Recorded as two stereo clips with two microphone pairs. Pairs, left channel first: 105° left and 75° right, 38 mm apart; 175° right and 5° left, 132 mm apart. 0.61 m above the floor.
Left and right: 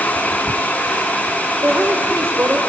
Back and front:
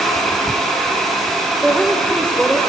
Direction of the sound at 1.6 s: 90° right.